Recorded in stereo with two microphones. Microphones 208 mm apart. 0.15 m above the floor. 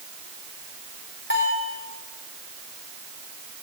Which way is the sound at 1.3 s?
60° left (ahead or behind).